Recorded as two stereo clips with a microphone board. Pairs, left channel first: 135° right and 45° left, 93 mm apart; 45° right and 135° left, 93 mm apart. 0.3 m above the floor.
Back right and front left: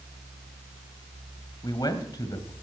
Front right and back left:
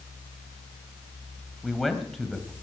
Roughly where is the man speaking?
Behind right.